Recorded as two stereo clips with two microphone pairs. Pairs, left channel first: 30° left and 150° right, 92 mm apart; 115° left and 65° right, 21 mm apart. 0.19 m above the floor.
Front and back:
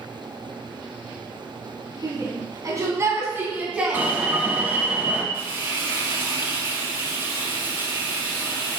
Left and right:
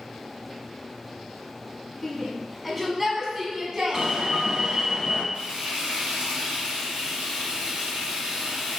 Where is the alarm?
95° right, 1.3 m.